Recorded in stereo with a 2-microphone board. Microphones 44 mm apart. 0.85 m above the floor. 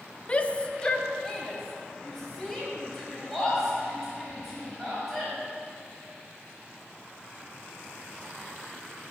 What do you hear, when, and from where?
0.3 s a shout: 25° left (ahead or behind), 0.5 m; by 5.3 s centre (ahead or behind), 5 m